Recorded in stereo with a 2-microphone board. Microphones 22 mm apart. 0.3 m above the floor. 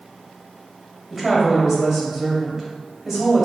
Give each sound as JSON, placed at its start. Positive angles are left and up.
{"t": 1.1, "sound": "a woman speaking", "side_deg": -10, "distance_m": 1.2}